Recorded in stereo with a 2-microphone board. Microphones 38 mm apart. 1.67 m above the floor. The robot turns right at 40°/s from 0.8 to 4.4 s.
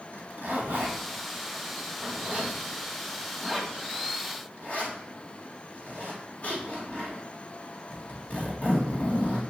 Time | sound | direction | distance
0.1 | a zipper | 70° right (ahead or behind) | 2.5 m